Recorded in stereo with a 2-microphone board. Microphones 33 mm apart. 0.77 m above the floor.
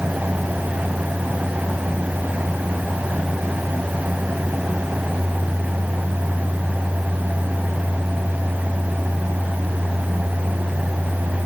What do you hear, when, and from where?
Only background noise.